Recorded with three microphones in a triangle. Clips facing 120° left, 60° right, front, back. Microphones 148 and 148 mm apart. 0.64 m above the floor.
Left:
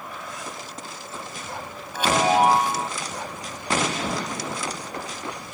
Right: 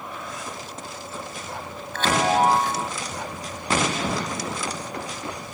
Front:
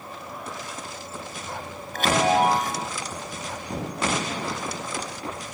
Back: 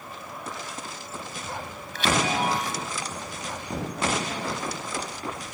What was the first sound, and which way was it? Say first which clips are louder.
A chime: left 1 dB, front 5 dB; 40° left.